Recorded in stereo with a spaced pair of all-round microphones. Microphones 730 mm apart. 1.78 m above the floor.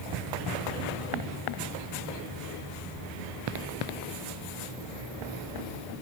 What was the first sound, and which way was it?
Only background noise.